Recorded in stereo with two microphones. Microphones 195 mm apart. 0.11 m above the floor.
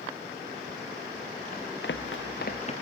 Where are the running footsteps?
50° left (ahead or behind), 1.2 m; by 2.7 s 35° left (ahead or behind), 1.1 m.